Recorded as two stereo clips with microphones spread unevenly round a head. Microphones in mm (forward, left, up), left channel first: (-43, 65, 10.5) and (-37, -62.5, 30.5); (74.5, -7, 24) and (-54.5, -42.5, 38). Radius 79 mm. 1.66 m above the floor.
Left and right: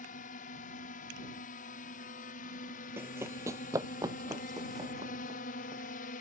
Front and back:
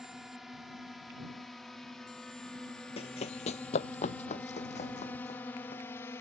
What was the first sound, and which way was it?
A drone, 110° left.